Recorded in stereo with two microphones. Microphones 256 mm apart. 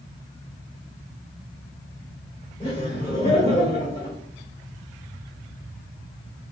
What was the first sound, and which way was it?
Laughter, 20° left (ahead or behind).